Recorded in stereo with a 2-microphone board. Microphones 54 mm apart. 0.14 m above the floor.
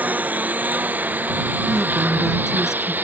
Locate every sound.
0.0 s a lawn mower: 30° right (ahead or behind); by 3.0 s 35° right (ahead or behind)
1.7 s a woman speaking: 10° right (ahead or behind)